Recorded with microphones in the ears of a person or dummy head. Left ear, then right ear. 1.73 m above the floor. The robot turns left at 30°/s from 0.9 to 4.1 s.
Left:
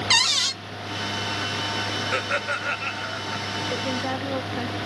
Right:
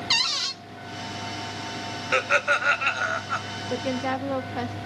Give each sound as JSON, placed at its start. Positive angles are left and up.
{"t": 0.1, "sound": "a cupboard door", "side_deg": 15, "distance_m": 0.5}
{"t": 2.1, "sound": "laughter", "azimuth_deg": -25, "distance_m": 1.4}
{"t": 3.7, "sound": "a woman speaking", "side_deg": -30, "distance_m": 0.8}